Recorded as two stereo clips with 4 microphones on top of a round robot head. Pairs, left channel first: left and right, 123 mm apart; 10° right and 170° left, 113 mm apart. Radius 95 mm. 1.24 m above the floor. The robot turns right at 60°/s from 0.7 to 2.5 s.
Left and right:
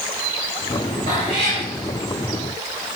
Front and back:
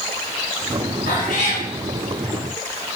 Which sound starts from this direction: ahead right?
A cat meowing, at 1.1 s.